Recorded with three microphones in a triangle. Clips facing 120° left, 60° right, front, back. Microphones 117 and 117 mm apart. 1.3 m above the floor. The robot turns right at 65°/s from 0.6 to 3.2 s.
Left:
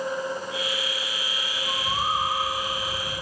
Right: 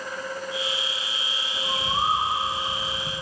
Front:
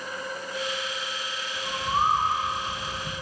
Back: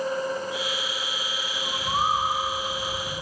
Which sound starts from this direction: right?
A bird, at 1.5 s.